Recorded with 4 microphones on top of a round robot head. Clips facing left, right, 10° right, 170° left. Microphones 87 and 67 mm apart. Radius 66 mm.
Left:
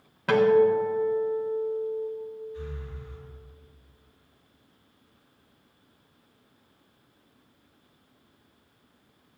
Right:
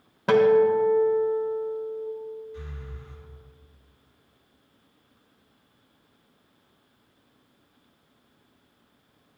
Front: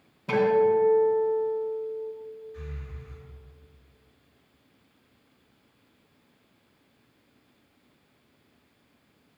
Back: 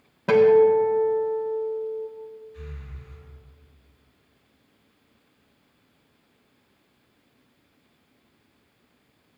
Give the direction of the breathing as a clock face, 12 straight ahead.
2 o'clock.